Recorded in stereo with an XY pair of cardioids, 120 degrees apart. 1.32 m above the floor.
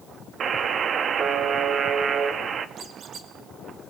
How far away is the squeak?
About 4 m.